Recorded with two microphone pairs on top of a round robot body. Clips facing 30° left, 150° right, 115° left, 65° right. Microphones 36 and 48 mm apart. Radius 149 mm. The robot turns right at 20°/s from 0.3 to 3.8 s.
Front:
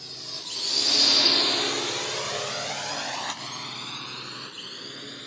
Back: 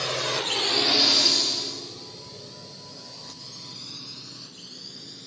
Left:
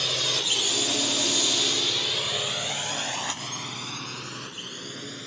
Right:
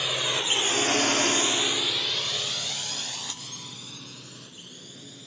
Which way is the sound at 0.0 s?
140° right.